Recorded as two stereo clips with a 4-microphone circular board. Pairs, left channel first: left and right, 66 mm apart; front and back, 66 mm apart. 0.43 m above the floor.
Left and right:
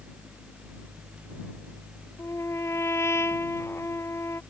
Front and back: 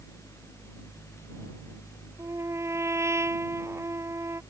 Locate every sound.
2.2 s a trumpet: 135° left